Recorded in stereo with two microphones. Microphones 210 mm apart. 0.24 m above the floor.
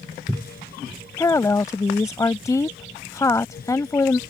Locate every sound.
1.2 s a woman speaking: 15° left (ahead or behind)